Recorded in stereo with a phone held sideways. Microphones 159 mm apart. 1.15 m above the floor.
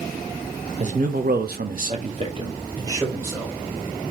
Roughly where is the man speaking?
Right.